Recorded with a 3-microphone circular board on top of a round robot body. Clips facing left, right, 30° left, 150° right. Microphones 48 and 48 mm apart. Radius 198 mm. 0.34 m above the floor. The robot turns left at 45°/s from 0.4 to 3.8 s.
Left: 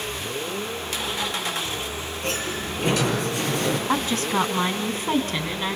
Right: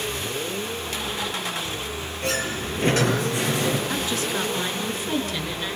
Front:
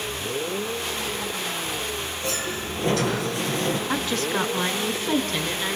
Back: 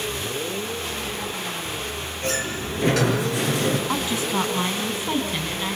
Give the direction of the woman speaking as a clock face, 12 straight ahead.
8 o'clock.